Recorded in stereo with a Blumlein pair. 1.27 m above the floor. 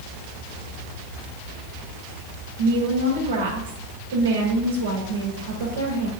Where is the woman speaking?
60° right, 4 m.